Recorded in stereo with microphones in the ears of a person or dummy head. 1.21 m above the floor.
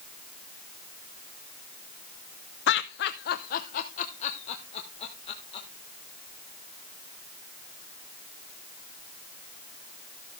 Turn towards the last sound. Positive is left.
turn(degrees=30)  # may be behind; listen again after turning